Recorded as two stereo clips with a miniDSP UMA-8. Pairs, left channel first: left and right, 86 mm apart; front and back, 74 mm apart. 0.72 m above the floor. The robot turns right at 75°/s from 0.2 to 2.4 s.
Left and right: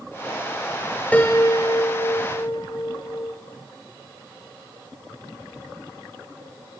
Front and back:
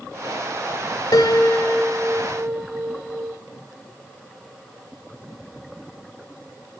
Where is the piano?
20° left, 1.4 m; by 3.3 s 115° left, 1.4 m.